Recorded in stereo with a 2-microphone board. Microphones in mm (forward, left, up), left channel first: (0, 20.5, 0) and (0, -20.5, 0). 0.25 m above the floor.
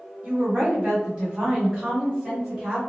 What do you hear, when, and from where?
0.2 s a woman speaking: 35° right (ahead or behind), 1.7 m; by 2.8 s 25° right (ahead or behind), 1.8 m